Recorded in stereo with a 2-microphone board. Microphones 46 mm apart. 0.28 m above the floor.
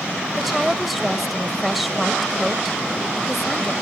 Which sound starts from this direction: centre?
A woman speaking, at 0.4 s.